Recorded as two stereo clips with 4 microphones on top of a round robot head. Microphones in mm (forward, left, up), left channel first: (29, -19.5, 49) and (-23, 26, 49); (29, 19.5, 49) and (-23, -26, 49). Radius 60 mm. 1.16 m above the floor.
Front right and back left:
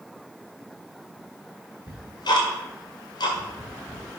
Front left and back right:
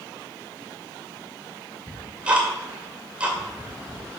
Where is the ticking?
60° right, 2 m.